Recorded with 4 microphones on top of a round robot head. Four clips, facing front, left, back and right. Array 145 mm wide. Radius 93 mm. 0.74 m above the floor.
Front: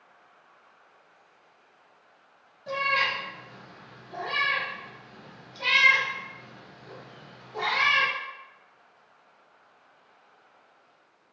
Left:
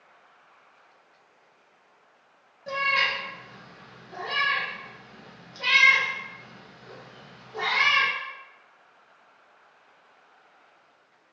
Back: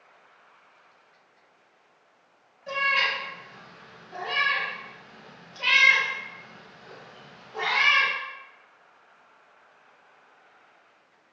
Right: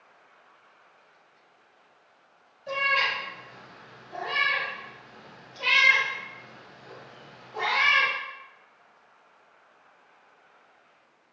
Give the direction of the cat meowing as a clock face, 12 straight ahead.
10 o'clock.